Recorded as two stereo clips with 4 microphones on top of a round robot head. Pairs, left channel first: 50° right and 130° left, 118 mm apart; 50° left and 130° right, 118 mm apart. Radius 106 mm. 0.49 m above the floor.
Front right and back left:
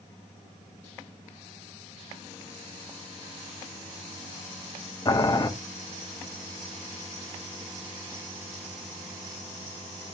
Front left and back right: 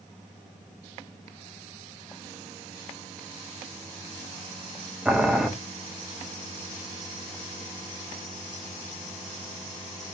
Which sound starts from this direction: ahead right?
Boiling, at 5.0 s.